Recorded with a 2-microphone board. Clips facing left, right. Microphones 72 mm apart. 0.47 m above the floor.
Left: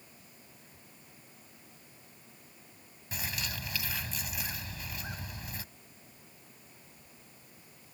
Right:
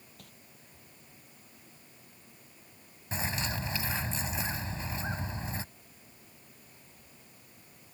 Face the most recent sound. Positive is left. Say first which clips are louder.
# right 5 dB
turn(degrees=-30)  # may be behind; listen again after turning